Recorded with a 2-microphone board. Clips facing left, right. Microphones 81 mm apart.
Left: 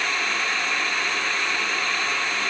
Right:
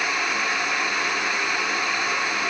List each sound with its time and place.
Only background noise.